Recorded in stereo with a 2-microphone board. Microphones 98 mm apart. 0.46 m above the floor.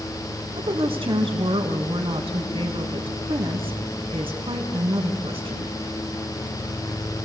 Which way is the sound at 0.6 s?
80° right.